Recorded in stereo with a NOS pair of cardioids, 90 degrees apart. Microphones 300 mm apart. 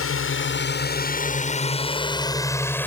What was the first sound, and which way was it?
A drone, 50° left.